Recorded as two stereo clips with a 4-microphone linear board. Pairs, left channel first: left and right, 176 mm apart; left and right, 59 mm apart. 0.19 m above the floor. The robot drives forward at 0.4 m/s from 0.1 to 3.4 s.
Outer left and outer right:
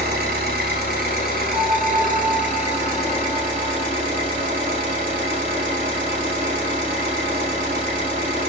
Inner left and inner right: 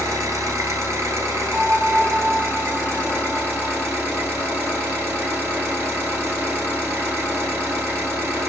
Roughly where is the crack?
I don't hear a crack.